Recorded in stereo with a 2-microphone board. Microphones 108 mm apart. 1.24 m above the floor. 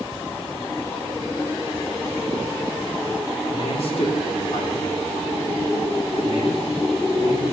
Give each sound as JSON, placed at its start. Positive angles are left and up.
{"t": 3.5, "sound": "a man speaking", "side_deg": 60, "distance_m": 3.0}